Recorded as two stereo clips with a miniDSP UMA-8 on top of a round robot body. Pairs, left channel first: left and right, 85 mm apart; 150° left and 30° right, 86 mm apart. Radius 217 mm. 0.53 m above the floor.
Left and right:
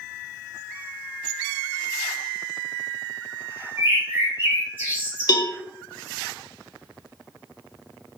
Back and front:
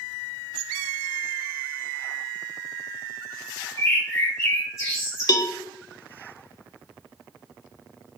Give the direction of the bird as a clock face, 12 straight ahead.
5 o'clock.